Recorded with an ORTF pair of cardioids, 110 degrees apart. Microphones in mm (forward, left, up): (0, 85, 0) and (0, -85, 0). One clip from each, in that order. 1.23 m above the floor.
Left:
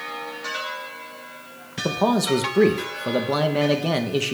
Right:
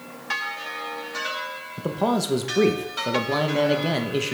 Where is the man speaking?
10° left, 0.8 m.